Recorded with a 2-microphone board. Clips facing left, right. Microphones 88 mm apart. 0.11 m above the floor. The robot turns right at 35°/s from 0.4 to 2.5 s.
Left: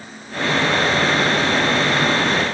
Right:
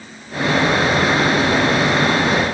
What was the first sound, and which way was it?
Only background noise.